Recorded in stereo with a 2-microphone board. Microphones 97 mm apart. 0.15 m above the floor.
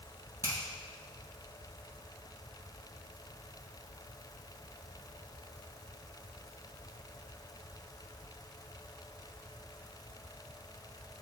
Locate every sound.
0.4 s a finger snap: 30° right (ahead or behind), 3.5 m